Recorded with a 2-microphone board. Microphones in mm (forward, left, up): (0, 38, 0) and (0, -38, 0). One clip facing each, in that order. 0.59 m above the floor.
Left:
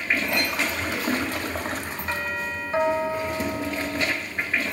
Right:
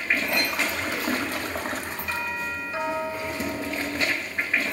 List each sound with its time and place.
2.1 s a doorbell: 40° left (ahead or behind), 4 m